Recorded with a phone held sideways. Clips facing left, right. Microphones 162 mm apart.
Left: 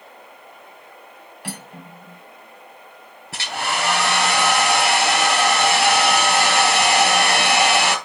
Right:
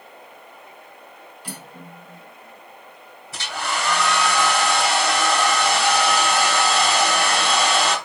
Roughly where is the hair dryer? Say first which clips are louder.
Left 2 dB; left.